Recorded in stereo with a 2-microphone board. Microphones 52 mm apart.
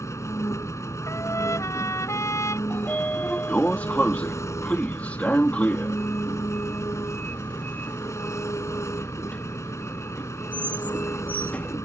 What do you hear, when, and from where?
0.0 s an engine running: 70° left (ahead or behind)
1.1 s a trumpet: 80° left
2.7 s a sliding door: 30° left (ahead or behind)